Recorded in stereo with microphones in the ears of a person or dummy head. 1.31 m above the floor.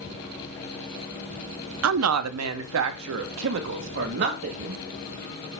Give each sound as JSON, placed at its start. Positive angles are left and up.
{"t": 1.8, "sound": "a woman speaking", "side_deg": -75, "distance_m": 0.6}